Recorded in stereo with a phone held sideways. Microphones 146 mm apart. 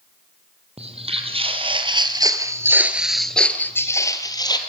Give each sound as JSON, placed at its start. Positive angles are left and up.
{"t": 0.8, "sound": "footsteps", "side_deg": -45, "distance_m": 2.5}